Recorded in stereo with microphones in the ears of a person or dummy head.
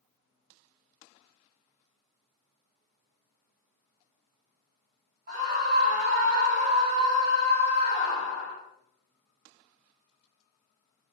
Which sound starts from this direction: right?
A scream, at 5.3 s.